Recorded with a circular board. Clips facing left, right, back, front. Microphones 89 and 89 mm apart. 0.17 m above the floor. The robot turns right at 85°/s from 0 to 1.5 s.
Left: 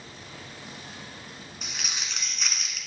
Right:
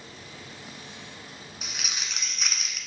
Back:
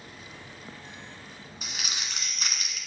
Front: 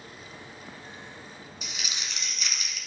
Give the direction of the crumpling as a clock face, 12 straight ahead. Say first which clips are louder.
Even, back 2 dB; 6 o'clock.